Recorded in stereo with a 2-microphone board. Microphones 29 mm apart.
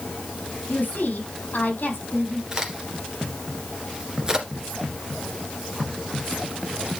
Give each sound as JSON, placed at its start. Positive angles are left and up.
{"t": 0.7, "sound": "a woman speaking", "side_deg": 65, "distance_m": 4.0}
{"t": 2.5, "sound": "a crack", "side_deg": -25, "distance_m": 2.0}